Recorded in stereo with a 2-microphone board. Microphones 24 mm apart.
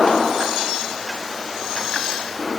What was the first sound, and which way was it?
Only background noise.